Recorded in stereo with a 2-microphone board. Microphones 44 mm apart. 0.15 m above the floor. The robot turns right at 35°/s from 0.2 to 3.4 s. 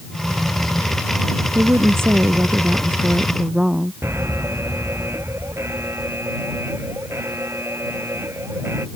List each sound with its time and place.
1.6 s a woman speaking: 80° right; by 3.9 s 15° right
4.0 s an alarm: 70° right (ahead or behind)